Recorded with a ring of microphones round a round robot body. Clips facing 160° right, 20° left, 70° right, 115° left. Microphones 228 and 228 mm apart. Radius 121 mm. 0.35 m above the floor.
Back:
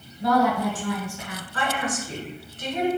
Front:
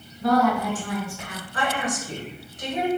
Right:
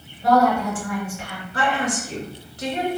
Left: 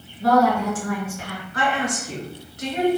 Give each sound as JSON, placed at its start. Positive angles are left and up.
{"t": 0.2, "sound": "a woman speaking", "azimuth_deg": 145, "distance_m": 1.9}
{"t": 1.5, "sound": "a woman speaking", "azimuth_deg": -45, "distance_m": 1.1}